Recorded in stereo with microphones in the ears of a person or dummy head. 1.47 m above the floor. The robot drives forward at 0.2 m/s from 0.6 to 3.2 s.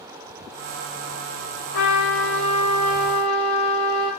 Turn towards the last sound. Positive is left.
turn(degrees=45)  # may be behind; listen again after turning